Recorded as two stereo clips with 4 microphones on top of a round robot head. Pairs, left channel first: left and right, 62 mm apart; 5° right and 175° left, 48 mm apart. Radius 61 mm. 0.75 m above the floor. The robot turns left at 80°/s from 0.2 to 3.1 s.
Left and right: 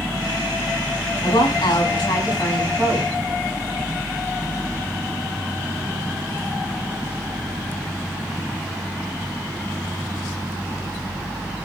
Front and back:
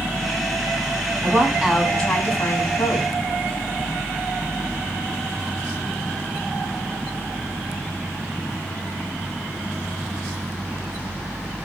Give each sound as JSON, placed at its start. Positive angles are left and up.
{"t": 1.2, "sound": "a woman speaking", "azimuth_deg": 130, "distance_m": 6.0}